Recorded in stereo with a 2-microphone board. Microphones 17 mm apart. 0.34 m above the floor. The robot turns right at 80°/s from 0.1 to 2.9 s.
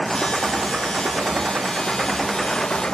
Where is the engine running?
Straight behind; by 2.9 s 45° left.